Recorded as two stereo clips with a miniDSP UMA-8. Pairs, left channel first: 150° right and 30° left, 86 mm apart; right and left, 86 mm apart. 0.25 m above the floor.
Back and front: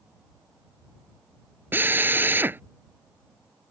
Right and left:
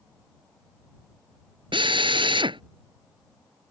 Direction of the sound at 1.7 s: 95° left.